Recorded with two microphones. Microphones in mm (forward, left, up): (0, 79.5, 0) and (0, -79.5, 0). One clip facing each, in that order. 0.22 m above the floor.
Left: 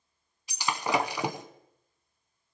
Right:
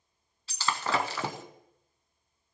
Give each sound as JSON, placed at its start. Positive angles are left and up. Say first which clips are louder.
{"t": 0.5, "sound": "breaking glass", "louder": "left 2 dB", "side_deg": 15, "distance_m": 0.7}